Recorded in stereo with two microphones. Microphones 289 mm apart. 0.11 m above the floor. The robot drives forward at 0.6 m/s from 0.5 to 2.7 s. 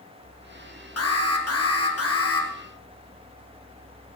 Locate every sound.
1.0 s an alarm: 55° left (ahead or behind), 2 m; by 2.5 s 50° left (ahead or behind), 2.5 m